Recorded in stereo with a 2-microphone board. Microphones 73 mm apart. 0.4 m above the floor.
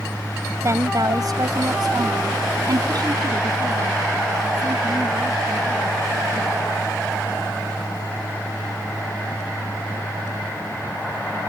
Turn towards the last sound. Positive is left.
turn(degrees=-50)  # may be behind; listen again after turning